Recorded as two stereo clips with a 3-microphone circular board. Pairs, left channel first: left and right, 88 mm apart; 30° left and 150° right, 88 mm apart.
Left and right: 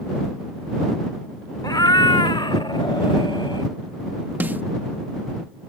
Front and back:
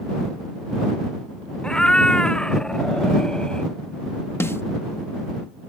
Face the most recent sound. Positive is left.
turn(degrees=-25)